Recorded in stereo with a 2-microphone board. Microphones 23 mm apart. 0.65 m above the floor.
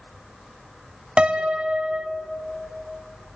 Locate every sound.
1.2 s a piano: 55° right (ahead or behind), 1.0 m